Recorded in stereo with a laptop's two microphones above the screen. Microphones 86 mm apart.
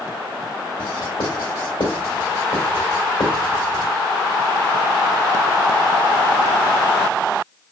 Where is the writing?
70° left (ahead or behind), 1.6 m.